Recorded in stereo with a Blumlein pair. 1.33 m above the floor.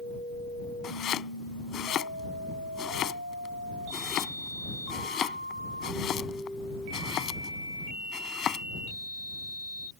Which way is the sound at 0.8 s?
30° left.